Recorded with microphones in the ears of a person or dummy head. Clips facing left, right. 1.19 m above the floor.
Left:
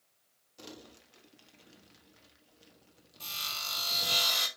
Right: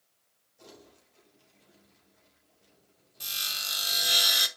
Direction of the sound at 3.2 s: 20° right (ahead or behind).